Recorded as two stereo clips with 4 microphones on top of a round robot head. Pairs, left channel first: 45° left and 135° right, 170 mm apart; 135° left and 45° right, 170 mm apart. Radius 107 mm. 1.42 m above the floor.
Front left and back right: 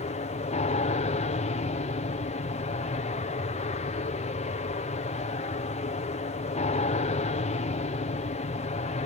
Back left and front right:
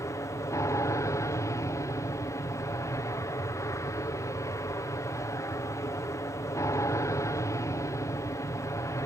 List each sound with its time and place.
0.0 s an aircraft: 70° left